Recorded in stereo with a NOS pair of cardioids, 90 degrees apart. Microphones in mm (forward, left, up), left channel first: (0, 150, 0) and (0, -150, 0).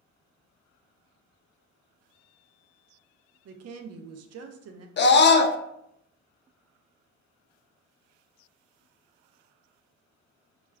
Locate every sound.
3.5 s a woman speaking: 60° right, 0.5 m
5.0 s a scream: 40° left, 0.5 m